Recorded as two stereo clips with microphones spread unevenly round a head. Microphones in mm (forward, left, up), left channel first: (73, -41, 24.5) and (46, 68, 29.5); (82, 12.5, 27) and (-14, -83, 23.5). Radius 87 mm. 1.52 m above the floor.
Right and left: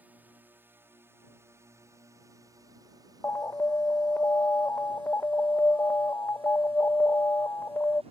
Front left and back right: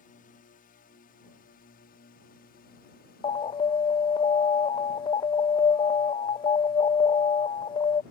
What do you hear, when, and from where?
0.0 s a drone: 30° left; by 8.1 s 75° left
3.2 s an alarm: 5° right